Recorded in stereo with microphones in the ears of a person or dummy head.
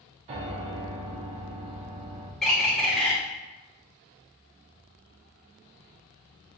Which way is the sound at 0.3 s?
30° right (ahead or behind).